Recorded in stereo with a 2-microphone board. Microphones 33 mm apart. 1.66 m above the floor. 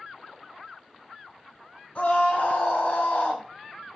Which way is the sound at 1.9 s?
40° left (ahead or behind).